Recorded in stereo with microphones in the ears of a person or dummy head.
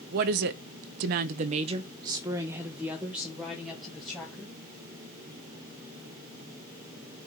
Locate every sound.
0.1 s a woman speaking: 50° right (ahead or behind), 0.7 m; by 4.5 s 5° left (ahead or behind), 1.8 m